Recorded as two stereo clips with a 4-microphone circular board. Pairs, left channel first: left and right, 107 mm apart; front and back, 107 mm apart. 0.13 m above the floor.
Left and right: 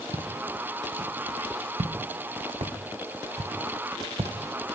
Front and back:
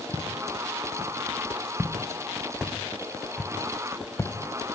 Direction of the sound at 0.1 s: 120° right.